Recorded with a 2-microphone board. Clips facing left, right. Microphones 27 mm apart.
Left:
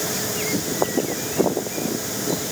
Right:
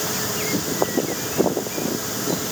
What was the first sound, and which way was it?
Only background noise.